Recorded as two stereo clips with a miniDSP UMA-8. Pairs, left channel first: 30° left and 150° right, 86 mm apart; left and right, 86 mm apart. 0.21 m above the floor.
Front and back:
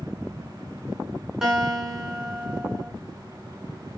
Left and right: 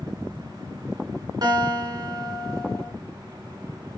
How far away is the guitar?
About 2.5 m.